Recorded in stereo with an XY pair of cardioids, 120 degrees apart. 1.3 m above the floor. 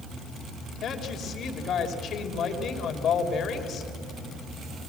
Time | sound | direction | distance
0.8 | a woman speaking | 55° left | 3 m